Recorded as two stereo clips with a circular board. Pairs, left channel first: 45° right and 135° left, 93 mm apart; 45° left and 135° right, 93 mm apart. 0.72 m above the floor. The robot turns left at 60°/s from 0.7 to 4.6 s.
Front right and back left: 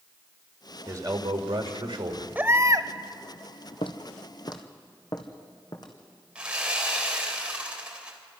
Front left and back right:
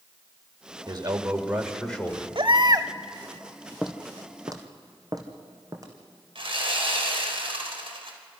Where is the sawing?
150° right, 3.5 m.